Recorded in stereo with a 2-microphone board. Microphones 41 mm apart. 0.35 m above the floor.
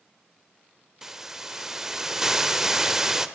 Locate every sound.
1.0 s a hiss: 10° right (ahead or behind), 1.1 m